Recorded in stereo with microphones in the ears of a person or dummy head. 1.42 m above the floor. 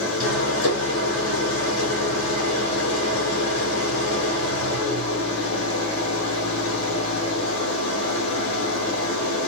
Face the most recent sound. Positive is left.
turn(degrees=80)